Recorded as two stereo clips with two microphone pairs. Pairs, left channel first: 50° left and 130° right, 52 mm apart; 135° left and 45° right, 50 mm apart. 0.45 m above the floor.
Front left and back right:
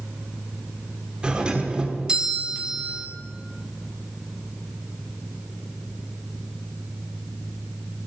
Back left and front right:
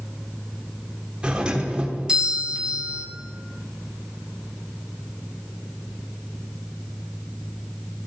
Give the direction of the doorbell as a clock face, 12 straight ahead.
3 o'clock.